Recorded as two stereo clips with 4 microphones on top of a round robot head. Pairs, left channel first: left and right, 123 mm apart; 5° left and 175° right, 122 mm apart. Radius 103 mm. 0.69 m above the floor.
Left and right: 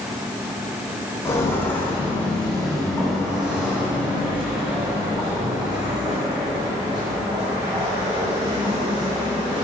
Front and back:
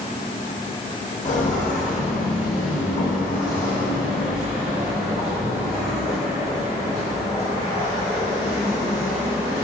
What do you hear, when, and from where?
1.2 s footsteps: 20° left, 2.5 m; by 9.7 s 45° right, 5.5 m